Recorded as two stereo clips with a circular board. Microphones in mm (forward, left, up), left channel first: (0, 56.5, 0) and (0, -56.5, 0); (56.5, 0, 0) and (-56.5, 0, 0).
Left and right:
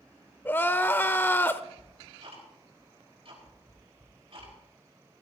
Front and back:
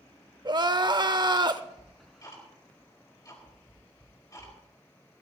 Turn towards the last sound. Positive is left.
turn(degrees=-55)